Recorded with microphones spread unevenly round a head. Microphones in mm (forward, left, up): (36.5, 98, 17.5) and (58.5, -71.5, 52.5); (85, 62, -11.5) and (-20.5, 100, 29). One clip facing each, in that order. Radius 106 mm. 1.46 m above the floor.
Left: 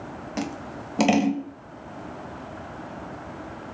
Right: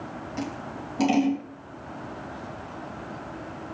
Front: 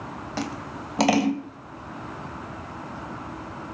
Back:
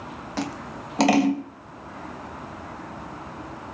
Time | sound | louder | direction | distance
0.4 | scissors | left 2 dB, back 1 dB | 80° left | 2 m